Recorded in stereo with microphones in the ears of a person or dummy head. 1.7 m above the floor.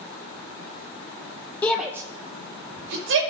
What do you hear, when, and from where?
1.6 s a shout: 10° left (ahead or behind), 0.6 m; by 3.2 s 75° right (ahead or behind), 1.1 m